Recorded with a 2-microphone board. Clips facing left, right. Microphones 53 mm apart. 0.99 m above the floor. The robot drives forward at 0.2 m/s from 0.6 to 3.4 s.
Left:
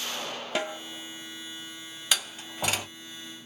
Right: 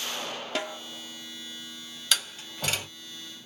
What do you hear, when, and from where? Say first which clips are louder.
0.6 s a snare drum: left 3 dB; 5° left (ahead or behind), 0.9 m; by 0.8 s 10° left (ahead or behind), 0.9 m
2.1 s a door slam: even; 15° left (ahead or behind), 1.3 m